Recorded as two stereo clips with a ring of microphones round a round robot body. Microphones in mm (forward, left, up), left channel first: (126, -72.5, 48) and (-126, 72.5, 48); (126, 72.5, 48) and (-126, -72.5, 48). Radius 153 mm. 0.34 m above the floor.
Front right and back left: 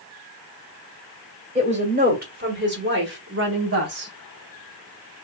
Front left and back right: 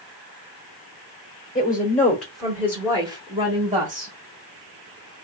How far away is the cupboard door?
No cupboard door in this recording.